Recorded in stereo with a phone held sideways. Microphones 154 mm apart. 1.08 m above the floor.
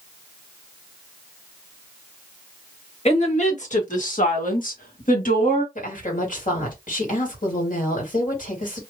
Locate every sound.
3.0 s a woman speaking: 45° left (ahead or behind), 1.8 m; by 5.7 s 55° left (ahead or behind), 1.5 m
5.8 s a woman speaking: 60° left (ahead or behind), 2 m